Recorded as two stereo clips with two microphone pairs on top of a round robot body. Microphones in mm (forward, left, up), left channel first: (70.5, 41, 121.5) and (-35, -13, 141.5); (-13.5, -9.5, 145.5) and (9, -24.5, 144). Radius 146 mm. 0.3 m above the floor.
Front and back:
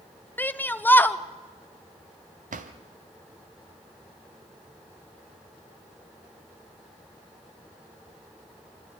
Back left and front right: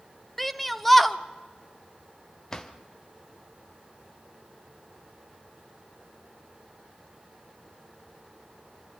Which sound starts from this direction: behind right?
A drawer, at 2.5 s.